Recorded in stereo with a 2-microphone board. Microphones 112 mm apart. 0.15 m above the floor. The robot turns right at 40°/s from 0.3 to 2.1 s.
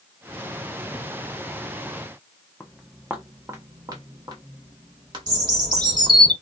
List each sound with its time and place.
2.6 s footsteps: 10° left (ahead or behind), 0.6 m; by 6.2 s 50° right (ahead or behind), 2 m
5.3 s a bird: 35° right (ahead or behind), 2.5 m